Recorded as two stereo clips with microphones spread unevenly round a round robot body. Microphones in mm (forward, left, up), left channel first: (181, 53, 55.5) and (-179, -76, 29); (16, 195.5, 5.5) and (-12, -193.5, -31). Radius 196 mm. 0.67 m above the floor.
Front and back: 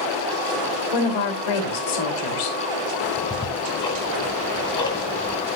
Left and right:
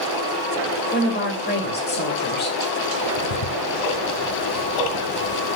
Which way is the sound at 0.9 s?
20° left.